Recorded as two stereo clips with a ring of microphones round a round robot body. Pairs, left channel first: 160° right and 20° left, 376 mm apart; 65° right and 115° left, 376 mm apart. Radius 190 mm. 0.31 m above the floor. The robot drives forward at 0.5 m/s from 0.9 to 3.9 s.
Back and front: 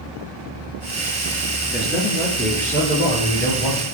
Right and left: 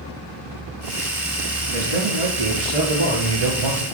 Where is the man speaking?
110° left, 4.5 m; by 3.9 s 125° left, 5 m.